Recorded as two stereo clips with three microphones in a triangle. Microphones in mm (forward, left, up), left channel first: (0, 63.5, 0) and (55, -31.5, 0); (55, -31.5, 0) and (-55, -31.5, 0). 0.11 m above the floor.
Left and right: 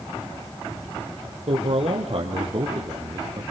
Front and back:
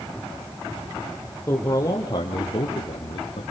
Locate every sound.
1.5 s a man speaking: 65° right, 3.5 m; by 3.4 s 15° right, 3.5 m